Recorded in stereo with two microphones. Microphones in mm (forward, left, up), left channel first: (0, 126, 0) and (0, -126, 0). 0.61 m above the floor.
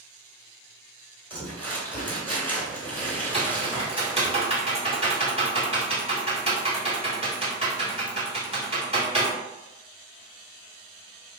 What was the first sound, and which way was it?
Crumpling, 5° left (ahead or behind).